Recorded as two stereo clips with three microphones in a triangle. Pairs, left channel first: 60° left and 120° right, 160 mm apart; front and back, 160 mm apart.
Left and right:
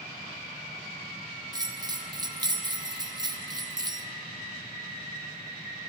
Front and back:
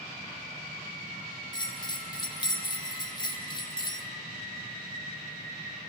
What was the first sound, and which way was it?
A bell, 55° right.